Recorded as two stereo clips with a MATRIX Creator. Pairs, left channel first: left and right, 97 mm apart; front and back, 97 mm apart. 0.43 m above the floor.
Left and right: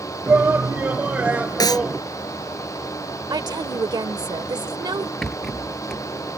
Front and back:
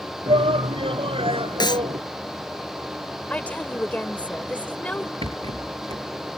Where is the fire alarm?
No fire alarm in this recording.